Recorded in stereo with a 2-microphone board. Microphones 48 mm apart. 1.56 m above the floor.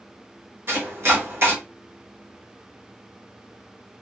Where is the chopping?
60° right (ahead or behind), 1.3 m.